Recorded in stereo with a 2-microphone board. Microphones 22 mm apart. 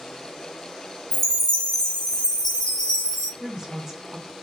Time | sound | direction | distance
1.1 | a chime | 20° left (ahead or behind) | 1.2 m
3.4 | a woman speaking | 25° right (ahead or behind) | 0.9 m